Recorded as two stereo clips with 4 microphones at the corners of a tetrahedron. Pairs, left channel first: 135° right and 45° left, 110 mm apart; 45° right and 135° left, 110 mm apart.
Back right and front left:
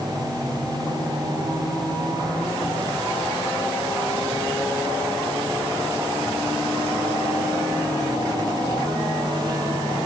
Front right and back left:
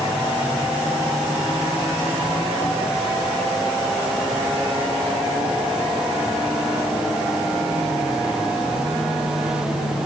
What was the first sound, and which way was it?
Only background noise.